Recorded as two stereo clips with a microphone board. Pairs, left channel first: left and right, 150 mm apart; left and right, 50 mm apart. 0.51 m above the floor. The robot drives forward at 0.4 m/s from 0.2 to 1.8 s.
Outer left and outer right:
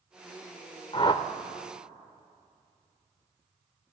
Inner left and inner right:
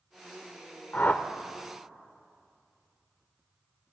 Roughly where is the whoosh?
Left.